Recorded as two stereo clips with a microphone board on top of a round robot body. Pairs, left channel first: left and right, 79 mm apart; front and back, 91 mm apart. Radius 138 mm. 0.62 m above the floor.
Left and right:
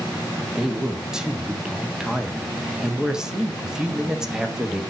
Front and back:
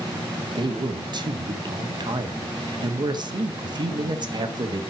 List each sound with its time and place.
0.5 s a man speaking: 170° right, 1.7 m